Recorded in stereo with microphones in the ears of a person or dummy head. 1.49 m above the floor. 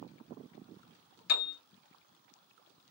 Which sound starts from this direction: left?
A piano, at 1.3 s.